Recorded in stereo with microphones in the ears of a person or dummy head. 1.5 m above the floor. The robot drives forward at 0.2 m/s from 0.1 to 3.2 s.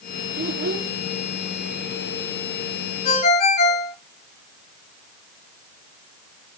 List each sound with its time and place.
0.4 s a child speaking: 55° right (ahead or behind), 2.5 m; by 0.9 s 50° right (ahead or behind), 2.5 m
3.0 s a ringtone: 40° left (ahead or behind), 1.6 m